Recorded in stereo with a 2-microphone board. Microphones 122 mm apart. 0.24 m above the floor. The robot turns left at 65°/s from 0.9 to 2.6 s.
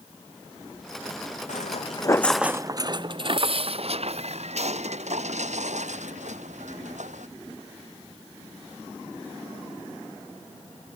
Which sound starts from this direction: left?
Footsteps, at 1.5 s.